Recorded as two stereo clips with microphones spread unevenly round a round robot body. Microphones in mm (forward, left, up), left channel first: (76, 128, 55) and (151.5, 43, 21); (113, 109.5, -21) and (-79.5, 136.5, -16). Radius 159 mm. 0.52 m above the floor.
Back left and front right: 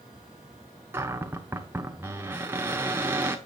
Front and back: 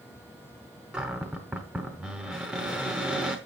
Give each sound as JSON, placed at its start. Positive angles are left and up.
{"t": 0.9, "sound": "a cupboard door", "azimuth_deg": -100, "distance_m": 0.7}